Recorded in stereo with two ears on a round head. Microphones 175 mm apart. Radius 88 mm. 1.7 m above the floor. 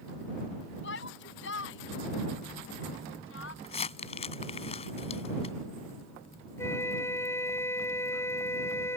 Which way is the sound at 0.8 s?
60° left (ahead or behind).